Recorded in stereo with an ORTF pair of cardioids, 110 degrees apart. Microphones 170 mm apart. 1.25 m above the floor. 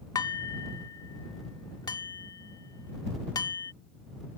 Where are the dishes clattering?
20° left.